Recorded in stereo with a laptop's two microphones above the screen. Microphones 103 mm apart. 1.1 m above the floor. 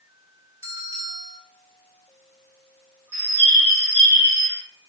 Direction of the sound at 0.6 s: 30° right (ahead or behind).